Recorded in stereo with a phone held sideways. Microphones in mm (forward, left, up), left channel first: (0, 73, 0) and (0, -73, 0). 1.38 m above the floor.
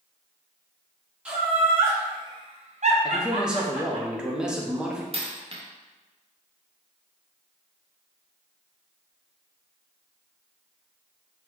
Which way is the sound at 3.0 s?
5° right (ahead or behind).